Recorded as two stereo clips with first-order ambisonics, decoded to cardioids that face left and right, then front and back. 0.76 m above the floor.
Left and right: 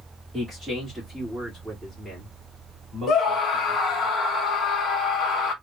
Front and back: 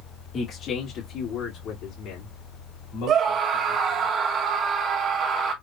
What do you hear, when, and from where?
0.3 s a man speaking: 15° right, 1.2 m; by 4.1 s 10° left, 3 m
3.1 s a scream: 135° left, 1.4 m